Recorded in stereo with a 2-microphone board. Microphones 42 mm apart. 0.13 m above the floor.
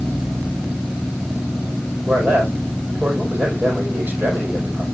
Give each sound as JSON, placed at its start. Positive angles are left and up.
{"t": 2.1, "sound": "a man speaking", "side_deg": -45, "distance_m": 5.5}